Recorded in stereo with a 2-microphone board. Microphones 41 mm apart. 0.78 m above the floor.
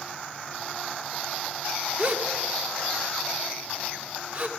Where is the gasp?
40° right (ahead or behind), 1.6 m.